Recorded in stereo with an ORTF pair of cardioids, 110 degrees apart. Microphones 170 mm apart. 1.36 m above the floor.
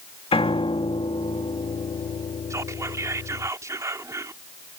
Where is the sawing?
No sawing in this recording.